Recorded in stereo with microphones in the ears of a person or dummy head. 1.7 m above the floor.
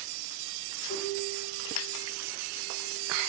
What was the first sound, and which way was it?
A piano, 55° left (ahead or behind).